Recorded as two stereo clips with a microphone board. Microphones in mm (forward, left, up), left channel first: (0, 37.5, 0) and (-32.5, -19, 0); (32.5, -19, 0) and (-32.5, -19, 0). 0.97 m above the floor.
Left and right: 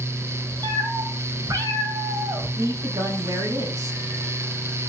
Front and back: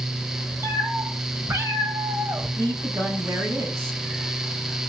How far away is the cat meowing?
About 3 m.